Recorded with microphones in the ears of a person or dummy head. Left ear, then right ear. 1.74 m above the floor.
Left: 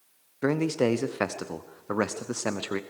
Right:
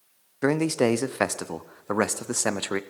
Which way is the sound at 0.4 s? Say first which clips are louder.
Right 3 dB; 25° right (ahead or behind).